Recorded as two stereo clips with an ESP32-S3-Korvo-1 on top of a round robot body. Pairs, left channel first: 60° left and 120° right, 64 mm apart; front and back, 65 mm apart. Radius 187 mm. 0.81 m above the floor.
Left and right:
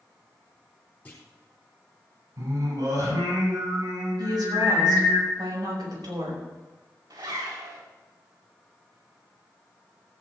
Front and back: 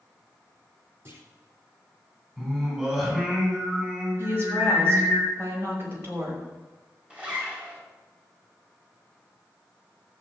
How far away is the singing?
About 6.5 m.